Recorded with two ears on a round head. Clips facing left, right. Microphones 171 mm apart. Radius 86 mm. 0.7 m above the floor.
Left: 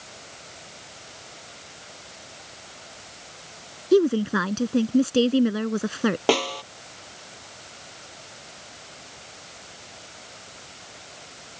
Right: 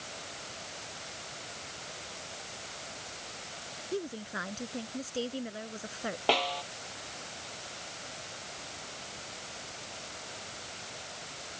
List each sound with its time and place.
3.9 s a woman speaking: 80° left
6.3 s a snare drum: 60° left (ahead or behind)